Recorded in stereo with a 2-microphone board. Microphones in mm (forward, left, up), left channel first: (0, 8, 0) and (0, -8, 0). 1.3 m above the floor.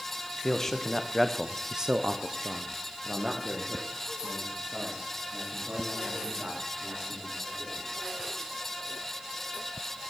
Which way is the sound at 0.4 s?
25° left (ahead or behind).